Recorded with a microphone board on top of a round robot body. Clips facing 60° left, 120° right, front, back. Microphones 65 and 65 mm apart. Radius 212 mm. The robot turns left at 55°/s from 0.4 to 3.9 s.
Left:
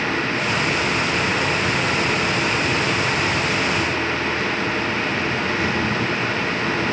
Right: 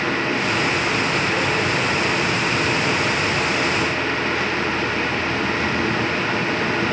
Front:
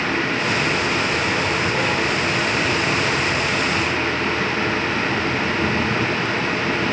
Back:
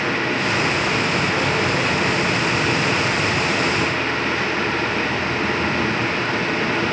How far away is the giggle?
I don't hear a giggle.